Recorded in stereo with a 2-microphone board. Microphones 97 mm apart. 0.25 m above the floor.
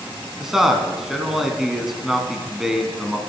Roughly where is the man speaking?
Centre.